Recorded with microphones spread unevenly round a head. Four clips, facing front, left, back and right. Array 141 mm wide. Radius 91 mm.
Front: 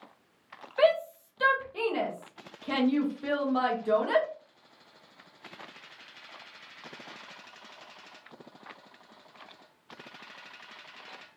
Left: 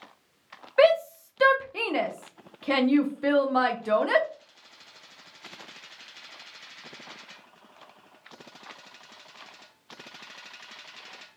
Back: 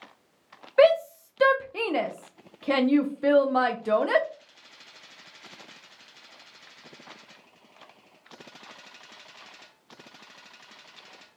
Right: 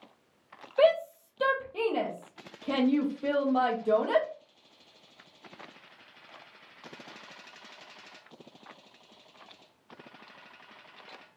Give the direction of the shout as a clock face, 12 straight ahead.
9 o'clock.